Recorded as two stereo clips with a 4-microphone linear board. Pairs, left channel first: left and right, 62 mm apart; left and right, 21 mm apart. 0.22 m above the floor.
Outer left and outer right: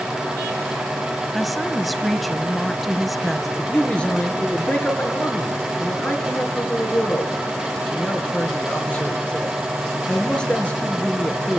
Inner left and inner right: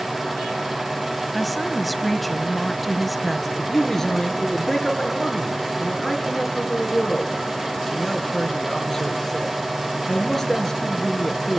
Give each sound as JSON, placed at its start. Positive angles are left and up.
{"t": 1.3, "sound": "a woman speaking", "side_deg": 0, "distance_m": 0.9}
{"t": 3.6, "sound": "a man speaking", "side_deg": 20, "distance_m": 3.0}